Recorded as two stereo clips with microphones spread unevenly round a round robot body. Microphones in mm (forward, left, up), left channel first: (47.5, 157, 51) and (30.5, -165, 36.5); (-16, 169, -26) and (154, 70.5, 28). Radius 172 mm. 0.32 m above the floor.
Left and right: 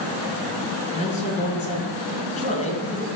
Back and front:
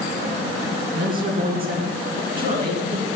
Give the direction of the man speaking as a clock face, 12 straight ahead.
11 o'clock.